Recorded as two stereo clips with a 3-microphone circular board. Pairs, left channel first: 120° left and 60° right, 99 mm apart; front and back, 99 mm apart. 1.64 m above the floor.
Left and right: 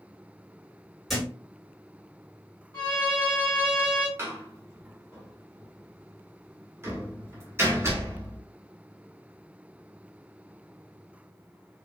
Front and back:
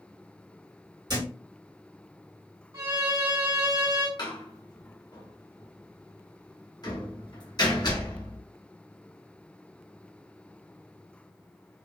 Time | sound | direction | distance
1.1 | a thud | 150° right | 2.0 m
2.7 | a violin | 160° left | 1.7 m
4.2 | a door slam | 5° right | 1.0 m